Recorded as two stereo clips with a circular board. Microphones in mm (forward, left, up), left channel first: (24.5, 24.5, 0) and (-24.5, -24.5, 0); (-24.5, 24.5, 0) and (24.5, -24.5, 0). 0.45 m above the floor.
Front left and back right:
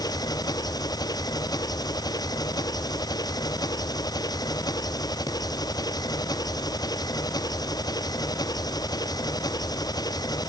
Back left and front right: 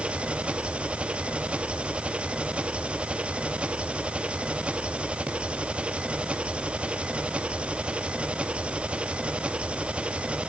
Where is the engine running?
30° left.